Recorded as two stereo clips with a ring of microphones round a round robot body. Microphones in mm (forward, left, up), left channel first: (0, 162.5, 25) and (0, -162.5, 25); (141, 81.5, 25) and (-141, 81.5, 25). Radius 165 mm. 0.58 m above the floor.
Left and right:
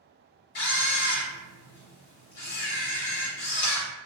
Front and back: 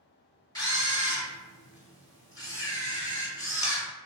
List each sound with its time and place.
0.6 s a camera shutter: 75° left, 1.1 m